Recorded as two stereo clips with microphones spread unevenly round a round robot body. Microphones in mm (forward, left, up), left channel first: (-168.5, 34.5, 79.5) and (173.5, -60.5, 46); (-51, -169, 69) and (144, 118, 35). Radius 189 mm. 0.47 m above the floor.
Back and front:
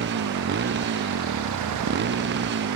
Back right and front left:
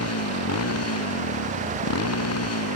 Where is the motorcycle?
75° right.